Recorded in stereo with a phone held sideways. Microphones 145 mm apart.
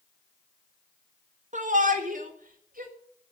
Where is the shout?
60° right (ahead or behind), 1.6 m; by 2.9 s 70° right (ahead or behind), 3 m.